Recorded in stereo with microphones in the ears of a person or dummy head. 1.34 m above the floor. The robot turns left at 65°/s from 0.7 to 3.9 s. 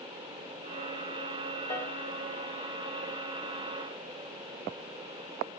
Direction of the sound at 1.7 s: 15° left (ahead or behind).